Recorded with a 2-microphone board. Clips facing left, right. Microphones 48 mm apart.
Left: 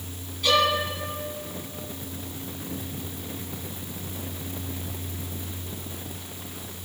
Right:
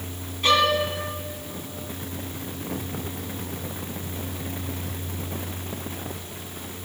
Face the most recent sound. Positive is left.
turn(degrees=-40)  # may be behind; listen again after turning